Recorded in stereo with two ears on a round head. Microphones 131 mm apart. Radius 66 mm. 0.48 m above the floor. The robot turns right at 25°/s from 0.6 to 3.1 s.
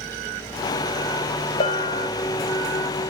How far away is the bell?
About 1.2 m.